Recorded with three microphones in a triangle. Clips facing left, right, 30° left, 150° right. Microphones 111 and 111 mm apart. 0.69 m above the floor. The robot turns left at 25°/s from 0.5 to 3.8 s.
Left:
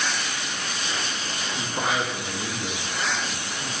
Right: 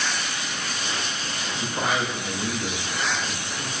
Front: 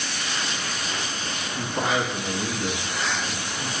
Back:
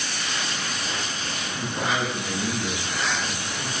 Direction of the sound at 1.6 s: 10° left.